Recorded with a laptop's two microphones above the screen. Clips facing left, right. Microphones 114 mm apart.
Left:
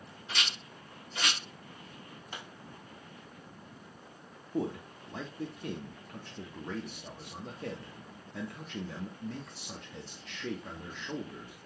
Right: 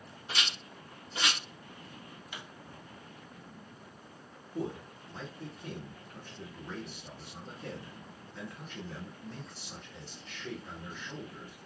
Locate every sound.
0.3 s a rattle: 25° right (ahead or behind), 1.1 m
2.3 s a pop: 40° left (ahead or behind), 0.6 m
4.5 s a man speaking: 80° left, 0.7 m